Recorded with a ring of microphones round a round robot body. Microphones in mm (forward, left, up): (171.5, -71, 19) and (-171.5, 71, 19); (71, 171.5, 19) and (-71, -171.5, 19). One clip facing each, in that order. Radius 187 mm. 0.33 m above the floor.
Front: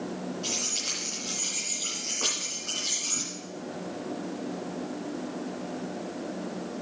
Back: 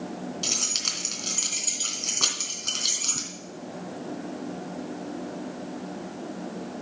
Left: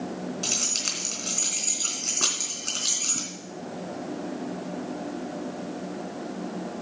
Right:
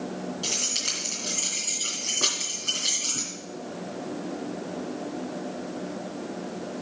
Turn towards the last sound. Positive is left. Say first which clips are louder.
# front 1 dB, even
turn(degrees=140)